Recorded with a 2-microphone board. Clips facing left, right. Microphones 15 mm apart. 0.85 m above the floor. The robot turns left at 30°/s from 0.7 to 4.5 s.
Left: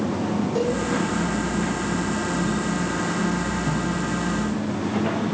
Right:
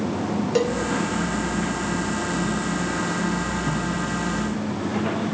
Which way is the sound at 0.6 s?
70° right (ahead or behind).